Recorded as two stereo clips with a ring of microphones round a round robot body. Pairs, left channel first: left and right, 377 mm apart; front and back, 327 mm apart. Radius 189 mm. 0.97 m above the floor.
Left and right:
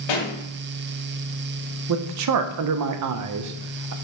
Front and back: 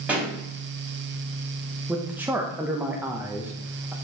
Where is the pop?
95° left, 2 m.